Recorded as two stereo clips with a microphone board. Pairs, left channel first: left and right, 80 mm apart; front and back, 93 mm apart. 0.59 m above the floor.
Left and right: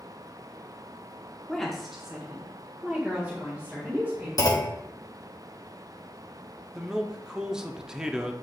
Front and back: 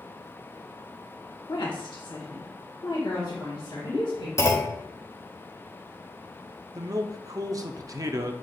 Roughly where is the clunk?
Ahead left.